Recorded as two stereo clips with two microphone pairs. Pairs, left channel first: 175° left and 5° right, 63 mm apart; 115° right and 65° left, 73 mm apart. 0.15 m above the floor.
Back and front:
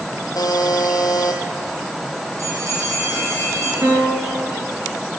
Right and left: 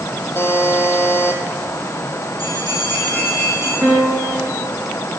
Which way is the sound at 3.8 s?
25° left.